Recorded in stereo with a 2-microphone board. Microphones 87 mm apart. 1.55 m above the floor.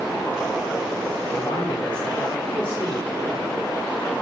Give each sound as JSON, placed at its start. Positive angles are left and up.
{"t": 1.3, "sound": "a man speaking", "side_deg": 60, "distance_m": 3.0}